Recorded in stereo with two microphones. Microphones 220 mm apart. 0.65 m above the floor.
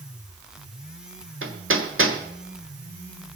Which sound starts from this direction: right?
Hammering, at 1.4 s.